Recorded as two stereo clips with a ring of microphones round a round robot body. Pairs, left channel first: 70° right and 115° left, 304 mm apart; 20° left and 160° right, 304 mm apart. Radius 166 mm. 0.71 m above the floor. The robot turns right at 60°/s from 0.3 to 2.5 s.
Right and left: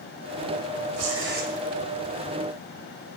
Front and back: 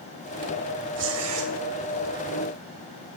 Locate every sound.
1.0 s tearing paper: 150° left, 2.5 m; by 1.5 s straight behind, 2.5 m